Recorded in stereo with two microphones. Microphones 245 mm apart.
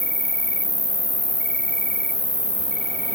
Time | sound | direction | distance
0.0 | an insect | 45° left (ahead or behind) | 0.8 m